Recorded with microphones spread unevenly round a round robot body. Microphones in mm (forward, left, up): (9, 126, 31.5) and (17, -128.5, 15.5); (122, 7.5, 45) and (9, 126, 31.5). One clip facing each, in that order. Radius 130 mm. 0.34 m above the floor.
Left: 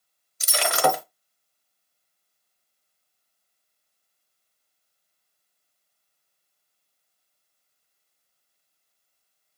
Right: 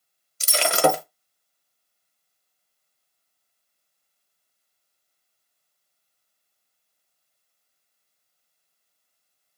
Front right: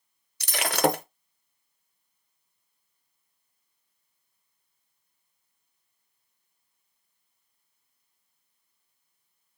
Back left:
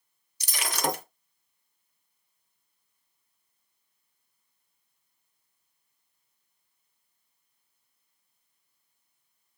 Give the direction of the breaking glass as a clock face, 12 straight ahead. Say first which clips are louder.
Right 3 dB, front right 7 dB; 1 o'clock.